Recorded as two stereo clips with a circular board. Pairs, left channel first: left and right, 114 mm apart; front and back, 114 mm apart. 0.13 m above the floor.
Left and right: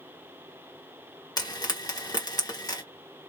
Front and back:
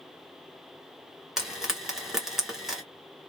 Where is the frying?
95° left, 2 m.